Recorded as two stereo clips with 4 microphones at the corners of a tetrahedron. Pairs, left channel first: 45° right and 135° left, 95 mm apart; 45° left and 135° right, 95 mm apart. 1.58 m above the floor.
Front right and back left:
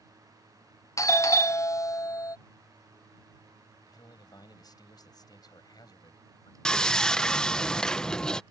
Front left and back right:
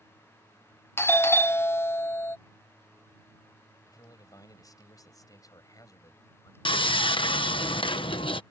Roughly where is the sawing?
Ahead left.